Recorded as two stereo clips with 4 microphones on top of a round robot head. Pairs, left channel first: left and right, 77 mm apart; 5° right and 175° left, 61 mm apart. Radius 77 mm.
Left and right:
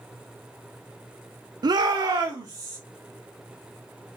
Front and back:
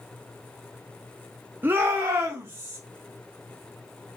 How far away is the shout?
About 0.5 m.